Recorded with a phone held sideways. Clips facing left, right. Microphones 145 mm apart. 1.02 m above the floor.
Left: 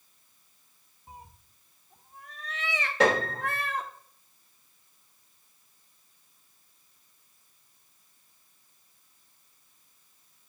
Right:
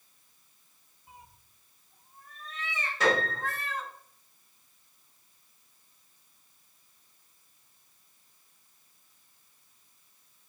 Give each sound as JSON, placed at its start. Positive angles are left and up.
{"t": 1.1, "sound": "a cat meowing", "side_deg": 40, "distance_m": 0.8}
{"t": 3.0, "sound": "a piano", "side_deg": 85, "distance_m": 5.0}